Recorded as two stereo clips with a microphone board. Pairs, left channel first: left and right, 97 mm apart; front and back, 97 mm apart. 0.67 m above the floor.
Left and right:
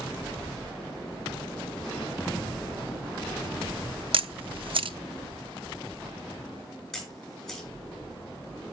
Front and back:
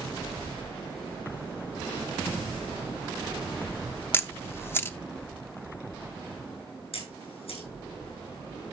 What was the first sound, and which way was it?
A camera shutter, 65° right.